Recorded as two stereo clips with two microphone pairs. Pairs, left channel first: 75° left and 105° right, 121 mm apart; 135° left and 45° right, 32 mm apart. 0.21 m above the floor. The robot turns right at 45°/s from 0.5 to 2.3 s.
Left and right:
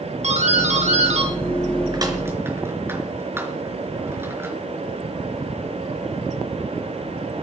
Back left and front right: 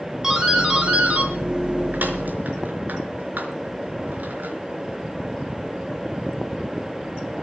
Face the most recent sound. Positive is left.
turn(degrees=-35)